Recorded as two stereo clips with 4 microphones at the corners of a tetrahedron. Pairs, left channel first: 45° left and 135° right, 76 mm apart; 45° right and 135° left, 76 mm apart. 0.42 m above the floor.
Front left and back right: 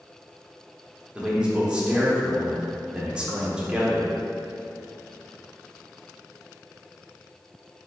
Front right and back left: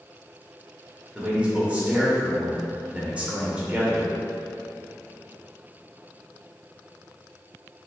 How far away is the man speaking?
About 0.8 m.